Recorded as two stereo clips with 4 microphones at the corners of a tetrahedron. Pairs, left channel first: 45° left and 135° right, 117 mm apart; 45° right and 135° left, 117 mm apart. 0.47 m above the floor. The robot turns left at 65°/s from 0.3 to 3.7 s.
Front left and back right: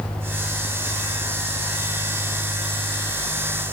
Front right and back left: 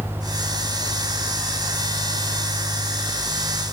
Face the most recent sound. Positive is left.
No sound to turn to.